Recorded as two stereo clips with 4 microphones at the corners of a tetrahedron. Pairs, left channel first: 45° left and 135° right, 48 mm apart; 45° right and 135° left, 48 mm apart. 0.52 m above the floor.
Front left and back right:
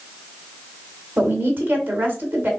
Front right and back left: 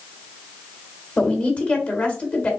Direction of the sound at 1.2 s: 95° right.